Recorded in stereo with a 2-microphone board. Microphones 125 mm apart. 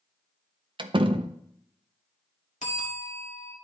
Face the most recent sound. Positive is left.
turn(degrees=75)  # may be behind; listen again after turning